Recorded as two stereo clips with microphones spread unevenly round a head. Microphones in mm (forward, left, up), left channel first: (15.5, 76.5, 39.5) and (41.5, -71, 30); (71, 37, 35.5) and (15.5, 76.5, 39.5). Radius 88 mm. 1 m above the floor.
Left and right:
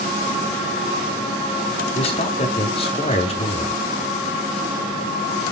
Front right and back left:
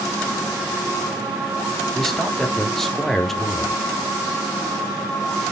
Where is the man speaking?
50° left, 3 m.